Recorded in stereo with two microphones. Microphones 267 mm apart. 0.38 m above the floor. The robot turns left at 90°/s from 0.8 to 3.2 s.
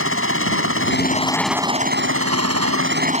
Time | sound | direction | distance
0.0 | a helicopter | 60° left | ?